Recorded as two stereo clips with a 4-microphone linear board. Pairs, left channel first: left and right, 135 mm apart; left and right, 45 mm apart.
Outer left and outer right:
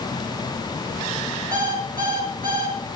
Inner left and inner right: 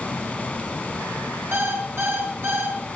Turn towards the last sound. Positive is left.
turn(degrees=-85)